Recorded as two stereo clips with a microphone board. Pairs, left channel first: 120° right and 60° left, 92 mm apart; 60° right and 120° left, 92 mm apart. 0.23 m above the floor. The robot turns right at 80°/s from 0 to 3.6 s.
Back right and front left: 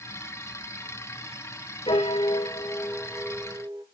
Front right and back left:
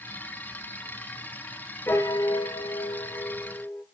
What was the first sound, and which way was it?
A piano, 125° right.